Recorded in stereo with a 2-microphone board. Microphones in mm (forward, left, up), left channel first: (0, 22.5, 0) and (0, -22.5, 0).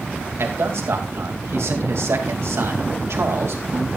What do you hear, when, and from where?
0.4 s a man speaking: 70° right (ahead or behind), 2.5 m